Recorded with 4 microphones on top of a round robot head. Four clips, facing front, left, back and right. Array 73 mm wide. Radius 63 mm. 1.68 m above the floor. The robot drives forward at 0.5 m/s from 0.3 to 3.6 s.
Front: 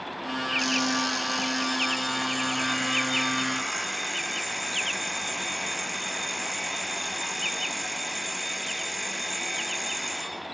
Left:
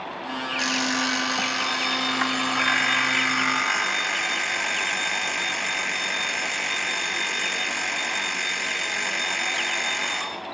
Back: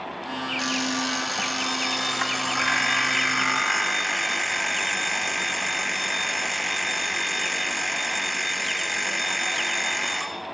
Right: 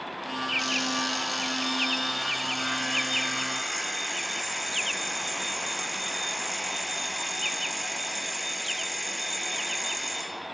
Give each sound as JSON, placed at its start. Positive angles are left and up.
{"t": 0.6, "sound": "an alarm clock", "azimuth_deg": 95, "distance_m": 1.8}